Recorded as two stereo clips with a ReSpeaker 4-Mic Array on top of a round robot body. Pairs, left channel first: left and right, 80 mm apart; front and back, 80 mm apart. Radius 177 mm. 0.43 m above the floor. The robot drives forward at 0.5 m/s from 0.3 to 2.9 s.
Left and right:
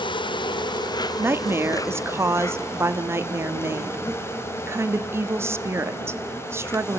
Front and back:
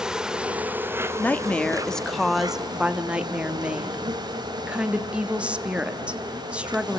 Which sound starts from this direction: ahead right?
A woman speaking, at 1.2 s.